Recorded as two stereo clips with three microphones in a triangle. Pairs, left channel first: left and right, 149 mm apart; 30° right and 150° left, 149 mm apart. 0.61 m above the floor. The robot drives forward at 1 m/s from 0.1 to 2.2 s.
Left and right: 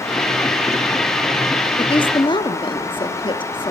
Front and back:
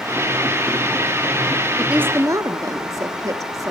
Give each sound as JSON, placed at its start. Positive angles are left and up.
{"t": 1.8, "sound": "a woman speaking", "azimuth_deg": 65, "distance_m": 1.2}